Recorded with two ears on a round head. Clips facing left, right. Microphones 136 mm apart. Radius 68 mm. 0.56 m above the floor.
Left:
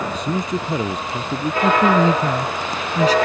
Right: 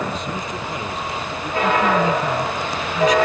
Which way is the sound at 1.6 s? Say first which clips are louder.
Left 3 dB; 30° left (ahead or behind).